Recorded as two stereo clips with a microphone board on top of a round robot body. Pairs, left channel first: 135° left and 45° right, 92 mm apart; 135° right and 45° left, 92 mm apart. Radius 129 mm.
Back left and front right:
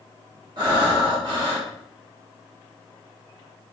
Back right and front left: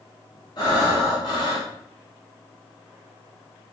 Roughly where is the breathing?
Right.